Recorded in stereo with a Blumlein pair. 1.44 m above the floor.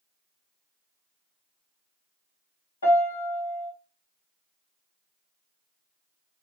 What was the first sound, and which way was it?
A piano, 70° left.